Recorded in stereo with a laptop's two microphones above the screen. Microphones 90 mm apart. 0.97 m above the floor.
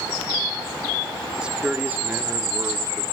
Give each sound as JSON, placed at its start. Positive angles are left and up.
{"t": 1.4, "sound": "a man speaking", "side_deg": -10, "distance_m": 2.5}